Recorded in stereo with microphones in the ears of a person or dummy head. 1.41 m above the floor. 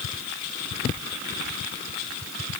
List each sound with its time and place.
Only background noise.